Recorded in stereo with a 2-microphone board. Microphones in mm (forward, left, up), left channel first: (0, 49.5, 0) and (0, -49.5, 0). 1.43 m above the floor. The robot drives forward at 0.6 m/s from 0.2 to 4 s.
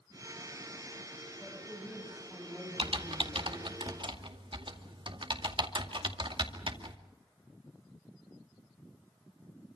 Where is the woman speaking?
10° left (ahead or behind), 8.5 m; by 3.8 s 15° left (ahead or behind), 7 m.